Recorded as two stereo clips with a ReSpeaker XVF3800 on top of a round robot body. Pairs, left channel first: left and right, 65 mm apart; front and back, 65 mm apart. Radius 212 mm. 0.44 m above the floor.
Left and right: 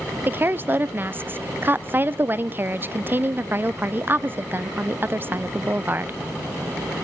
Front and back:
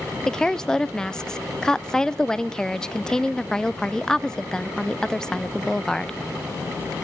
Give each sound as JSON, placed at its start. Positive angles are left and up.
{"t": 0.3, "sound": "a woman speaking", "azimuth_deg": -70, "distance_m": 0.7}